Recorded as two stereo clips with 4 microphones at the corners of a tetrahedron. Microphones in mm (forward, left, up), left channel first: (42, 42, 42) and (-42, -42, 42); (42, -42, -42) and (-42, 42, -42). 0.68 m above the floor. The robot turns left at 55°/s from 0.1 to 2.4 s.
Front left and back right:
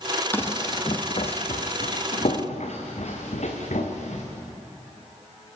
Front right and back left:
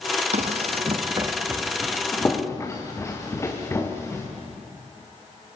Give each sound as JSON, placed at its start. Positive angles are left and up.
{"t": 0.3, "sound": "running footsteps", "azimuth_deg": 120, "distance_m": 1.6}